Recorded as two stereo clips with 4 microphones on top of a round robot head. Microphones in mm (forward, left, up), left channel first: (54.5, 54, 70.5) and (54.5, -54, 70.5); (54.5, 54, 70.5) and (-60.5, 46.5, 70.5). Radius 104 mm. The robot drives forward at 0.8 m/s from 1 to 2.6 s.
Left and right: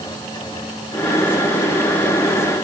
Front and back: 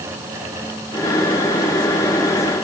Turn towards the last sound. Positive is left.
No sound to turn to.